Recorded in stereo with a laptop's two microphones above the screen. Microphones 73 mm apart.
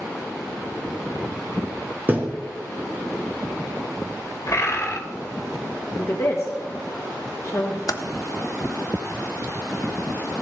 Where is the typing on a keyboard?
60° left (ahead or behind), 0.6 m.